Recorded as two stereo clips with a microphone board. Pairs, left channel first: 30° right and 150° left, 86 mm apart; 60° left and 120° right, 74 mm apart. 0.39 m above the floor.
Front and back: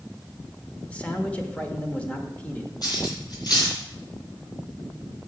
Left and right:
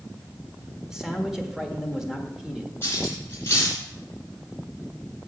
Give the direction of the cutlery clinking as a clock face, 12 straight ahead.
12 o'clock.